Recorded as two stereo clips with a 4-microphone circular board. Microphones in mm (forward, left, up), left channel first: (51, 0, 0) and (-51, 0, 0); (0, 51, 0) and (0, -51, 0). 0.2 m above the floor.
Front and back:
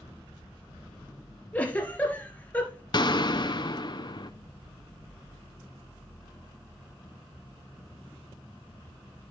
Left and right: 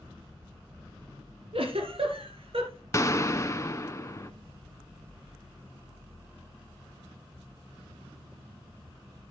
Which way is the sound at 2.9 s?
35° left.